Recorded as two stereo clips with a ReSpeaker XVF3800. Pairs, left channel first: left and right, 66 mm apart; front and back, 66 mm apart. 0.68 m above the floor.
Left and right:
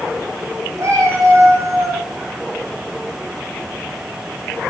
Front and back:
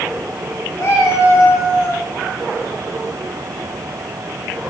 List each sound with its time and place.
0.8 s a cat meowing: 45° right, 7.5 m